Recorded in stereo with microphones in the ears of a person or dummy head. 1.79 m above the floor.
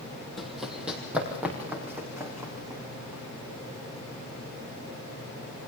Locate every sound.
0.4 s running footsteps: centre (ahead or behind), 4 m; by 3.2 s 15° right (ahead or behind), 7.5 m